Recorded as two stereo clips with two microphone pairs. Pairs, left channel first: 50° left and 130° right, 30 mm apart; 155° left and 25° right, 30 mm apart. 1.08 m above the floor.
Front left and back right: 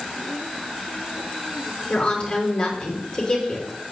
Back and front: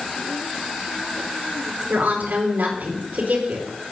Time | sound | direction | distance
1.9 | a woman speaking | straight ahead | 4.5 m